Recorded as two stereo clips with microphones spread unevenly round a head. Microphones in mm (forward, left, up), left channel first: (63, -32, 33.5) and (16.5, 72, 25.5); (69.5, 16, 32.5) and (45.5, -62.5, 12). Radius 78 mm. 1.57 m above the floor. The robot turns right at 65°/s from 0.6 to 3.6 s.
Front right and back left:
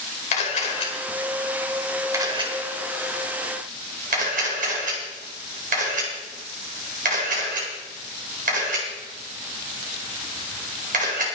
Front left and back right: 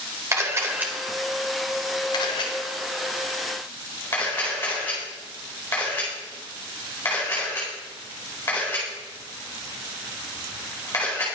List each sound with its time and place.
0.3 s a camera shutter: 50° right, 4.5 m; by 11.3 s 145° left, 4.5 m